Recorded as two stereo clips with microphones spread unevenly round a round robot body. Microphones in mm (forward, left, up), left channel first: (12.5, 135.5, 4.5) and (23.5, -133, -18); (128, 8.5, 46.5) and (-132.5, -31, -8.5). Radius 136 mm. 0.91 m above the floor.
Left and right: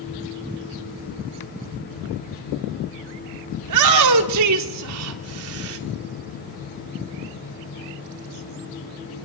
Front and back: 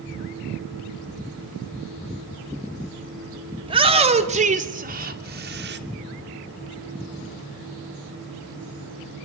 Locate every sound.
3.6 s a shout: 105° right, 2.5 m; by 5.8 s 125° right, 3 m